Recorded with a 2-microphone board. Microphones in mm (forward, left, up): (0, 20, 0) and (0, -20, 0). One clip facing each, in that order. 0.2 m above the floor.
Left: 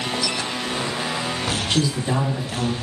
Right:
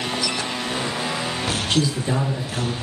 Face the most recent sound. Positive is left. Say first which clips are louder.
# even
turn(degrees=20)  # may be behind; listen again after turning